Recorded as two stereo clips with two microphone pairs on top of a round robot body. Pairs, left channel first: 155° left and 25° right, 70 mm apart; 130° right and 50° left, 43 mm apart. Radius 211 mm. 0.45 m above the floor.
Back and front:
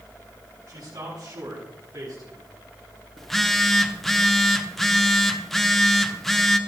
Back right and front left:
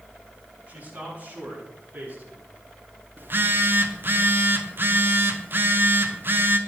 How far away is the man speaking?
About 7.5 m.